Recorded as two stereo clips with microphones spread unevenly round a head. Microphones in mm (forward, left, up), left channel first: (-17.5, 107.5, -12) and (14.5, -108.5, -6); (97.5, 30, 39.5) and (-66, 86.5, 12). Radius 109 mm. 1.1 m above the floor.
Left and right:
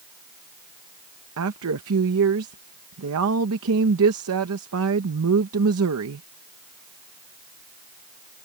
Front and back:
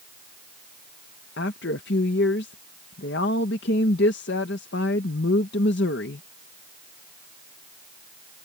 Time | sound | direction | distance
1.4 | a woman speaking | 55° right | ?